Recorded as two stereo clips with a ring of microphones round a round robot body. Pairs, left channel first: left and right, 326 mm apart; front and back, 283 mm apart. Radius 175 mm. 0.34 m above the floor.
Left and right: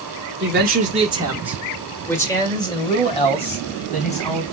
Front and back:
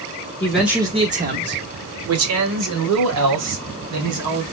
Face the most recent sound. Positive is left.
turn(degrees=160)